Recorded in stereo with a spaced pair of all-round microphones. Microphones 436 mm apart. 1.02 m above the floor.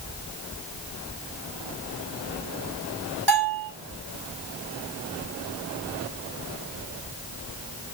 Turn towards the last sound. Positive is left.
turn(degrees=-65)  # may be behind; listen again after turning